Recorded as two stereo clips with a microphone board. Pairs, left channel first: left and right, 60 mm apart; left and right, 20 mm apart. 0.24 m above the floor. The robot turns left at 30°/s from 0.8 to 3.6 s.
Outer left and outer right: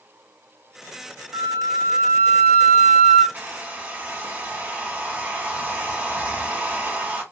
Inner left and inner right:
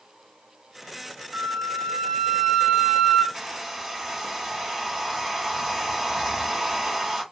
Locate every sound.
1.3 s a flute: 110° right, 1.8 m; by 3.2 s 165° right, 1.8 m
3.3 s a hair dryer: 35° right (ahead or behind), 1.2 m; by 7.2 s 25° right (ahead or behind), 1.2 m